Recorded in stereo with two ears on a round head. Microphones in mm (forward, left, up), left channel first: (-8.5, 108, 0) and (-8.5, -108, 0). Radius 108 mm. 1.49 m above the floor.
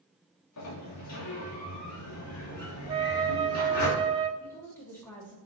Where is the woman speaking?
10° left (ahead or behind), 3 m.